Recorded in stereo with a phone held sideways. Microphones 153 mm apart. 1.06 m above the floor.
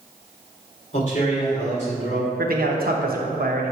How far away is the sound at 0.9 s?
About 2.5 m.